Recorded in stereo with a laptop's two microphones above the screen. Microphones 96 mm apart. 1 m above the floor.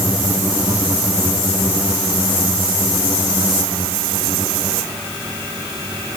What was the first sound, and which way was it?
Only background noise.